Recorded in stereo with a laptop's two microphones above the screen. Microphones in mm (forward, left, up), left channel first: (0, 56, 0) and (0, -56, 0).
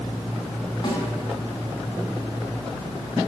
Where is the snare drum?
40° left (ahead or behind), 4 m.